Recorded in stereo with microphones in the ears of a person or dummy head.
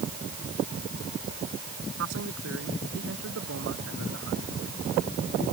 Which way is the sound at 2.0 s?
70° right (ahead or behind).